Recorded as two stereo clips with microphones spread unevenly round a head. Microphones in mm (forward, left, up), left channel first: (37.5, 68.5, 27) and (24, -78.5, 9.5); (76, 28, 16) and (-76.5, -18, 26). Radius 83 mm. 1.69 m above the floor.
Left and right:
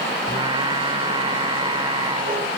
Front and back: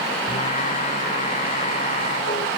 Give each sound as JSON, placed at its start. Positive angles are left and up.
{"t": 0.3, "sound": "singing", "azimuth_deg": -35}